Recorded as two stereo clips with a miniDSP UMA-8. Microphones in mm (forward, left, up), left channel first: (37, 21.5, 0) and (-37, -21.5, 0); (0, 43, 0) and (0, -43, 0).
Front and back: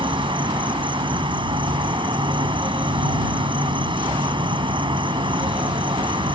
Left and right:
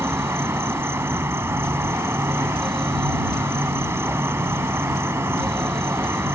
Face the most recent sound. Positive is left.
turn(degrees=-150)